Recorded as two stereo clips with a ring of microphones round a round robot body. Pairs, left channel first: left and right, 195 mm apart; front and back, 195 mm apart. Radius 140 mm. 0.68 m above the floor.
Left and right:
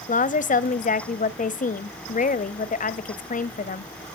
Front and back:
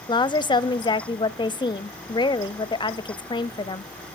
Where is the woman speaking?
60° left, 0.6 m.